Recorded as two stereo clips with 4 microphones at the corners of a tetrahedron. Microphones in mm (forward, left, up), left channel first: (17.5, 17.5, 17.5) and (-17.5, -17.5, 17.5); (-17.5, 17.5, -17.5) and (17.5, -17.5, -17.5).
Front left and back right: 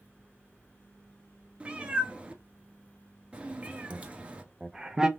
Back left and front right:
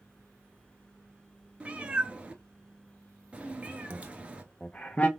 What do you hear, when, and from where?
1.6 s a cat meowing: 90° right, 0.8 m
3.9 s laughter: 165° left, 0.7 m